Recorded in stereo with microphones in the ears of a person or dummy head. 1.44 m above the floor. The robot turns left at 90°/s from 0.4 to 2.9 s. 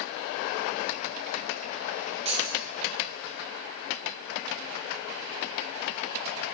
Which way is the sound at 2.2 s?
35° right (ahead or behind).